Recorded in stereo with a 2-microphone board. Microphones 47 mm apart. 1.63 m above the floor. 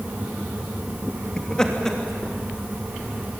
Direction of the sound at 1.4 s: 15° left (ahead or behind).